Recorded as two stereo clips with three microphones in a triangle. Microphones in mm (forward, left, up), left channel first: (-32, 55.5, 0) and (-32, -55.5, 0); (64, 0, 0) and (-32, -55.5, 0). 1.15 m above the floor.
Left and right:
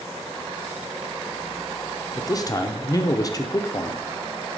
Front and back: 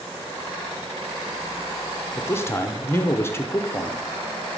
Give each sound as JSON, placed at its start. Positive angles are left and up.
{"t": 2.2, "sound": "a man speaking", "azimuth_deg": 75, "distance_m": 0.7}